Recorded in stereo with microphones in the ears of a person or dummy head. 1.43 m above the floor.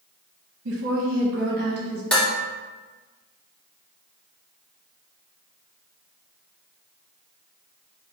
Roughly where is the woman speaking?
Right.